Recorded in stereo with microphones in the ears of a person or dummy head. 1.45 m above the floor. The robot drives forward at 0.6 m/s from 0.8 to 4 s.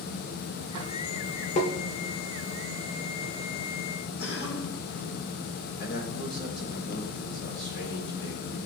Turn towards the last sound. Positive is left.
turn(degrees=75)  # may be behind; listen again after turning